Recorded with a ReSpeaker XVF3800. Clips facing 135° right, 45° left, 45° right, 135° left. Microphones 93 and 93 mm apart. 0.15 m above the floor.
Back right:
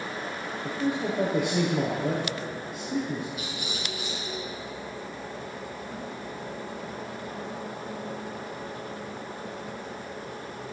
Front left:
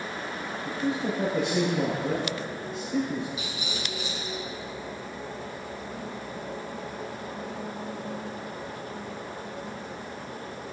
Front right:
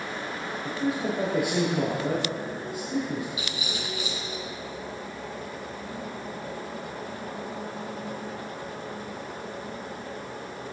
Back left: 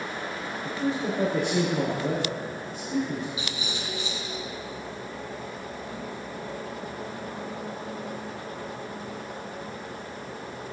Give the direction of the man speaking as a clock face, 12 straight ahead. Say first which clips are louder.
Back right 1 dB, even; 4 o'clock.